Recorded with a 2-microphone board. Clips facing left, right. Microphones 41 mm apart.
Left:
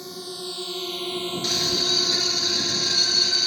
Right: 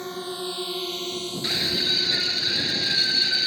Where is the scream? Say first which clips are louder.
Right 1 dB; 20° right (ahead or behind).